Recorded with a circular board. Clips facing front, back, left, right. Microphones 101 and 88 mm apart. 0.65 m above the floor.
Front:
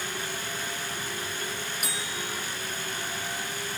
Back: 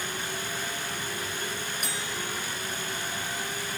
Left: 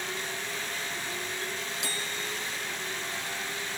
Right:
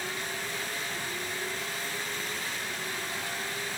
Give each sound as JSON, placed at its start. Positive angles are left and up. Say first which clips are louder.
{"t": 1.8, "sound": "a bell", "louder": "even, even", "azimuth_deg": 85}